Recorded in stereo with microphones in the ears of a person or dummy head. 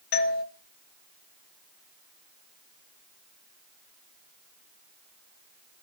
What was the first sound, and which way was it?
A doorbell, 45° left (ahead or behind).